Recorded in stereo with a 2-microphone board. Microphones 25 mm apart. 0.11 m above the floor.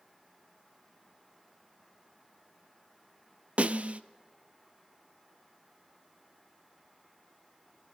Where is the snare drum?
60° right (ahead or behind), 0.8 m.